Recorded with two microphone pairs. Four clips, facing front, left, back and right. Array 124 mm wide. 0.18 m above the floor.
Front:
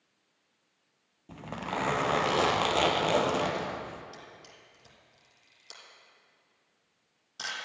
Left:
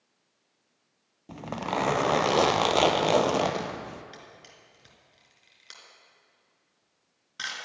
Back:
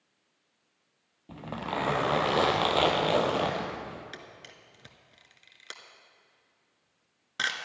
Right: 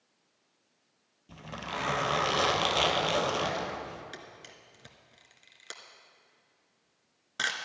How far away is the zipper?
About 0.9 m.